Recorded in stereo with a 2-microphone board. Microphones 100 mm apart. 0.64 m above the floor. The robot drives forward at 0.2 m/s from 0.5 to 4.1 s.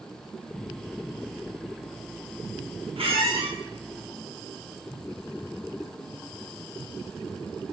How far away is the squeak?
About 0.5 m.